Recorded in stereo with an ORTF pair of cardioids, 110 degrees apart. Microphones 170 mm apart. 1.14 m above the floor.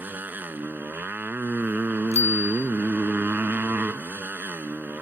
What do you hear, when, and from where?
0.0 s a motorcycle: 10° right
2.1 s a bicycle bell: 40° left